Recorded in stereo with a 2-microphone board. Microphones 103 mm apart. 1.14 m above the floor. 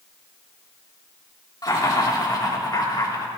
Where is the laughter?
40° left (ahead or behind), 2.5 m.